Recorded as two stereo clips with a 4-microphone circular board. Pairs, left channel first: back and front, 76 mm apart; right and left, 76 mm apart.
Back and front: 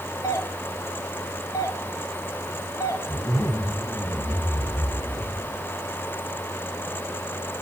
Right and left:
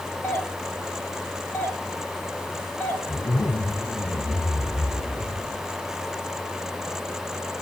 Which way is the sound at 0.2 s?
150° right.